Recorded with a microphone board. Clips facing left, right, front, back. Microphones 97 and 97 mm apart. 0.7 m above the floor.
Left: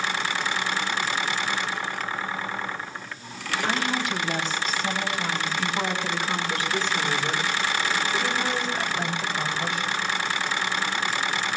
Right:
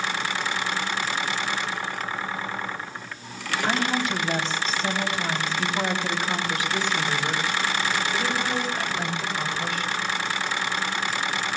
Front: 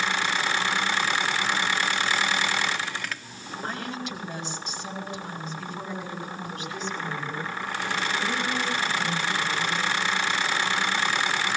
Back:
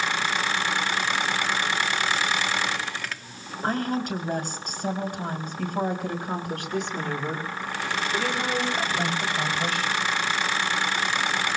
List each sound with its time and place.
3.6 s a woman speaking: 135° right, 4 m; by 10.0 s straight behind, 4.5 m